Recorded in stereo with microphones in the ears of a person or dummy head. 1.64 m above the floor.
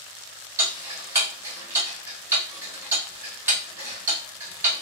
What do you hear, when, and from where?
0.6 s ticking: 20° right (ahead or behind), 1.1 m